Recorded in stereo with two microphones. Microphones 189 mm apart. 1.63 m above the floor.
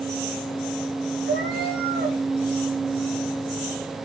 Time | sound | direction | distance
1.3 | a cat meowing | 60° right (ahead or behind) | 3 m